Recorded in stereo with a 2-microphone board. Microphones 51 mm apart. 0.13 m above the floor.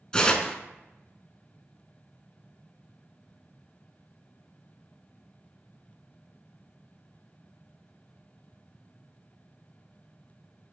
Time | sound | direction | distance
0.1 | tearing paper | 20° left (ahead or behind) | 0.5 m